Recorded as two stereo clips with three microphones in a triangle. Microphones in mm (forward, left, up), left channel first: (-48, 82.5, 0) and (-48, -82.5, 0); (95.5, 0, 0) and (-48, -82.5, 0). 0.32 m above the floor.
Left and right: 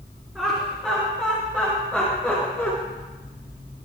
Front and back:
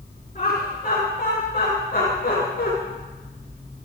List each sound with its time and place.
0.3 s laughter: 10° right, 5 m; by 2.7 s straight ahead, 4 m